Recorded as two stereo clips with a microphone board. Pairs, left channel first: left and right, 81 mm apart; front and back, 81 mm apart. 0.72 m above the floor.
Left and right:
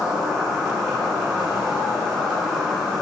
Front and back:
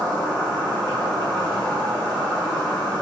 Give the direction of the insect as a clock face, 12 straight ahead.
6 o'clock.